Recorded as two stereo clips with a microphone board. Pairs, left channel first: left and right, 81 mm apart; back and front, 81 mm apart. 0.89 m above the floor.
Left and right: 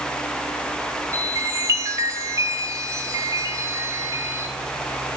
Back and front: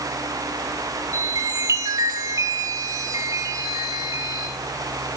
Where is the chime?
45° right, 2 m.